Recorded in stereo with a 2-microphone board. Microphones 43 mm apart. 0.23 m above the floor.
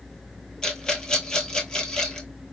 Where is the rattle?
20° left (ahead or behind), 1.0 m.